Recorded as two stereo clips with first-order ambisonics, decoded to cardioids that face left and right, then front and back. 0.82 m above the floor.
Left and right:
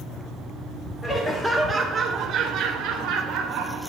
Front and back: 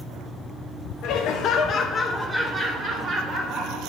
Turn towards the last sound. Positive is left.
turn(degrees=-130)